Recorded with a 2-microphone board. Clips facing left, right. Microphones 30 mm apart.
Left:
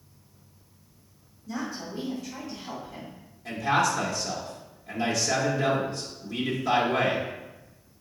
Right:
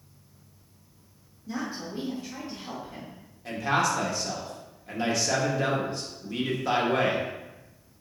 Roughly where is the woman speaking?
Right.